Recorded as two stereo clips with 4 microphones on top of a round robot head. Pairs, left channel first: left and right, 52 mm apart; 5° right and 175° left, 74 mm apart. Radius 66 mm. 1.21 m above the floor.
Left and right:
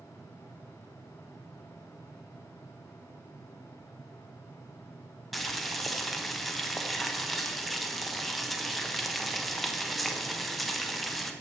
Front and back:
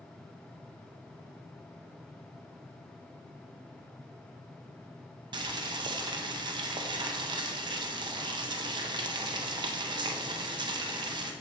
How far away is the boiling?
About 0.8 m.